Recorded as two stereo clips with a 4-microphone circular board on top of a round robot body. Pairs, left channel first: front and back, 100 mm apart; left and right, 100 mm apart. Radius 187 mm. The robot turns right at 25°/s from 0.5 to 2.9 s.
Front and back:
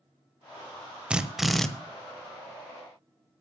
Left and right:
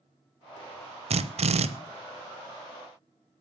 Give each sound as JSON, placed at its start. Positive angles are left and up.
{"t": 1.1, "sound": "a drill", "azimuth_deg": -100, "distance_m": 1.0}